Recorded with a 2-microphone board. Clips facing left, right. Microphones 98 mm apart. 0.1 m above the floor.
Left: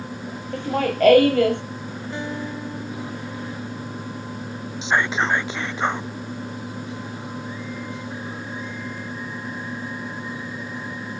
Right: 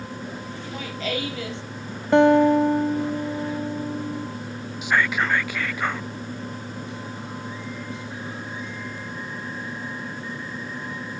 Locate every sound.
0.5 s laughter: 60° left (ahead or behind)
2.1 s a guitar: 65° right (ahead or behind)
4.8 s whispering: 25° left (ahead or behind)